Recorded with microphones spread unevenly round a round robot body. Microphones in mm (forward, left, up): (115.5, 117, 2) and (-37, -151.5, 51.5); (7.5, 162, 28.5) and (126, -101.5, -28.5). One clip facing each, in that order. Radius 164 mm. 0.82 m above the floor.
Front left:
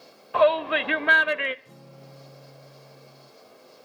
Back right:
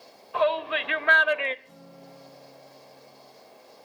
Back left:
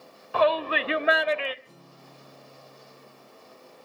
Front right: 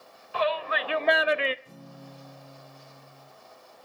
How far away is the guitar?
About 6.5 m.